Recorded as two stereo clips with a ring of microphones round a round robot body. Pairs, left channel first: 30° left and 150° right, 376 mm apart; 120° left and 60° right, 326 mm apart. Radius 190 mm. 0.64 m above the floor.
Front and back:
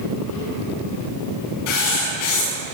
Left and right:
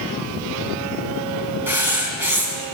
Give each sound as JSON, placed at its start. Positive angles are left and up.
{"t": 1.7, "sound": "writing", "azimuth_deg": 25, "distance_m": 7.5}